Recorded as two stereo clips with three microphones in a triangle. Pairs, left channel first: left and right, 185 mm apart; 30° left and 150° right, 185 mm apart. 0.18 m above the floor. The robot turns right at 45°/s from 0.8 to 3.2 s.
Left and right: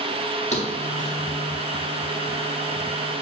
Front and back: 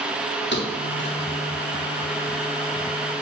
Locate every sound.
0.5 s a thud: 35° left, 4.5 m; by 1.2 s 55° left, 4.5 m